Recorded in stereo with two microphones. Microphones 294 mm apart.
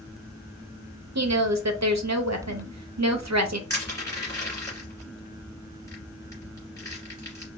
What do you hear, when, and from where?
1.1 s a woman speaking: 65° right (ahead or behind), 0.7 m
3.7 s crushing: 10° left (ahead or behind), 2 m